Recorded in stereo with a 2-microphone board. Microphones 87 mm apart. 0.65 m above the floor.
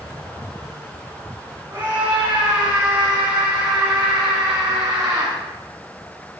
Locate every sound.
1.7 s a scream: 30° right (ahead or behind), 7 m; by 5.3 s 40° right (ahead or behind), 4.5 m